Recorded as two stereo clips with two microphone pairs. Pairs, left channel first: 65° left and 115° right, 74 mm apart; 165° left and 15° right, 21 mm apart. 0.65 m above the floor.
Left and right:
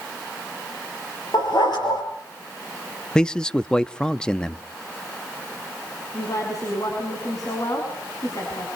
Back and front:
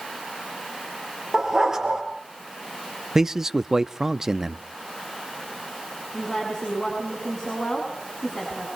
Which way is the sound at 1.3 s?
55° left.